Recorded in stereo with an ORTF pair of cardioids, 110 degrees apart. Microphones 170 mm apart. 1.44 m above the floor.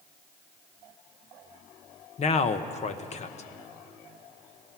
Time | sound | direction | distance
2.2 | a man speaking | 40° left | 1.3 m